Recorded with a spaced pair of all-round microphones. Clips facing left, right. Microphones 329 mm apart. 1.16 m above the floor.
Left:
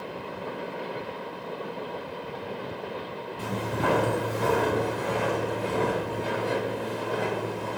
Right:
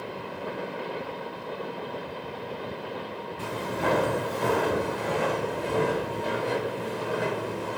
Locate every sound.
3.4 s footsteps: 45° left (ahead or behind), 1.7 m; by 7.8 s 15° right (ahead or behind), 2.5 m